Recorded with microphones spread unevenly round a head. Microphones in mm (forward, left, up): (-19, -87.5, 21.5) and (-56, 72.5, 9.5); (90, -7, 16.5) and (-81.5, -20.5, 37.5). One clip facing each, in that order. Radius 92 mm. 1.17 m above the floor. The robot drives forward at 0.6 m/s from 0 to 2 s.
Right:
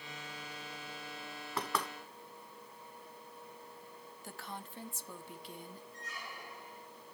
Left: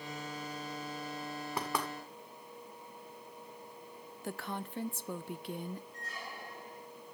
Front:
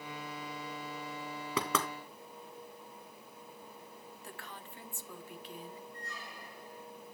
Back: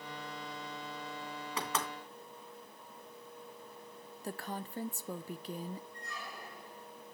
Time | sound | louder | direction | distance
1.6 | knocking | even, front 4 dB | 25° left | 2 m
4.2 | a woman speaking | left 8 dB, back 11 dB | 130° left | 0.8 m
5.9 | a squeak | left 3 dB, back 1 dB | 155° left | 5.5 m